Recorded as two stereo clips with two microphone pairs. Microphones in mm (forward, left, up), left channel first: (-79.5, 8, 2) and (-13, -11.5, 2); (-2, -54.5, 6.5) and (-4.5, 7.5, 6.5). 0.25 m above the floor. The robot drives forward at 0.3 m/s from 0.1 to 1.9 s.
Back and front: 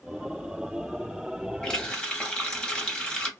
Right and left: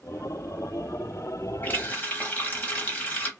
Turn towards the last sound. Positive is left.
turn(degrees=-135)